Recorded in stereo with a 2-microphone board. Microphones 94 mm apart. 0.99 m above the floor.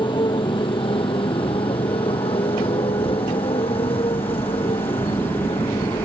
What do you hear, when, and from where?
0.0 s a motorcycle: 60° left (ahead or behind); by 6.0 s 80° left